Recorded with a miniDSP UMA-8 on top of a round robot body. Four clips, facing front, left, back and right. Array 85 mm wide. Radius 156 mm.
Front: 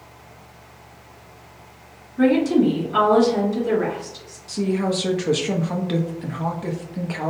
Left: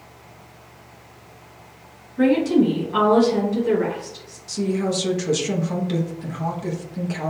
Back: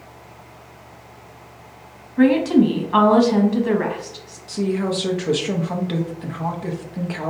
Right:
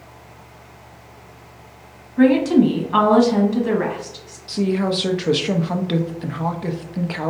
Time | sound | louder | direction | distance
2.2 | a woman speaking | right 3 dB, back 2 dB | 140° right | 1.2 m
4.5 | a woman speaking | right 3 dB, even | 90° right | 0.7 m